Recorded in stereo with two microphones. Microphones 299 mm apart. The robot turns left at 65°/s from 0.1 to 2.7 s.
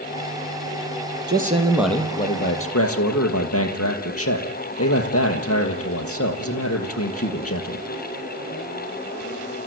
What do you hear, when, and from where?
1.3 s a man speaking: 140° right, 3.5 m; by 7.8 s 125° left, 3.5 m